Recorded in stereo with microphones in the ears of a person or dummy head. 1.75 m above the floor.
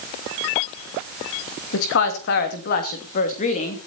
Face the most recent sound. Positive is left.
turn(degrees=35)  # may be behind; listen again after turning